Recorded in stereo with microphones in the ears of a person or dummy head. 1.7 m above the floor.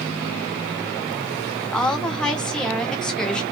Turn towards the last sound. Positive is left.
turn(degrees=5)  # may be behind; listen again after turning